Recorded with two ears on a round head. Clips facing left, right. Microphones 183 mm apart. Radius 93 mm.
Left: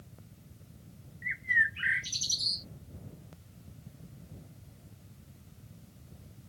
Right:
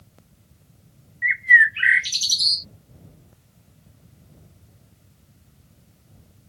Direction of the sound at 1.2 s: 75° right (ahead or behind).